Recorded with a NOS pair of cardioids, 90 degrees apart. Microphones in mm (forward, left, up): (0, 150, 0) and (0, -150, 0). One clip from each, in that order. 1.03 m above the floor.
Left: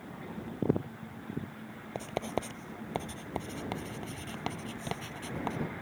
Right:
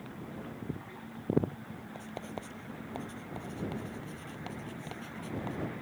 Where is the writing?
55° left.